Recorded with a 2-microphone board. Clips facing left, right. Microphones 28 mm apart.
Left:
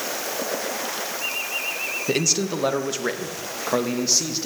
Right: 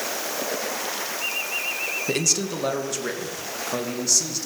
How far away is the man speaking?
About 2.5 m.